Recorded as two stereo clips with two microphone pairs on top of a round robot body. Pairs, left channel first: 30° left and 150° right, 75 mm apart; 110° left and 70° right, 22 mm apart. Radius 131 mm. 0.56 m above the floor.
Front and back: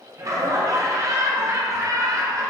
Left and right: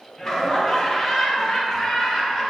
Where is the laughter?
175° right, 0.8 m.